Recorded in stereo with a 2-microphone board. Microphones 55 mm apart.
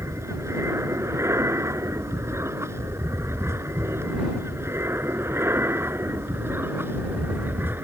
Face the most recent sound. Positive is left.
turn(degrees=-40)  # may be behind; listen again after turning